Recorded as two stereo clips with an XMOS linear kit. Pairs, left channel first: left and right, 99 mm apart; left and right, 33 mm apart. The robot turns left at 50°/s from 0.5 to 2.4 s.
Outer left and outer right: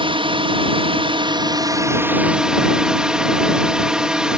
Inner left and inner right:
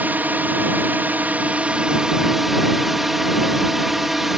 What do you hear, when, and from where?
0.0 s a drone: 75° right; by 4.4 s 170° right